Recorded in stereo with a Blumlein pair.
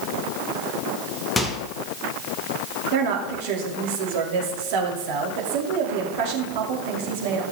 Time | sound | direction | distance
1.4 | a microwave | 10° left | 1.1 m
2.9 | a woman speaking | 50° right | 2.5 m